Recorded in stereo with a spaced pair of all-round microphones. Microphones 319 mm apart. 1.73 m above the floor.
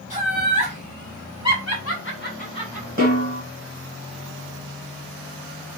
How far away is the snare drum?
About 1.7 m.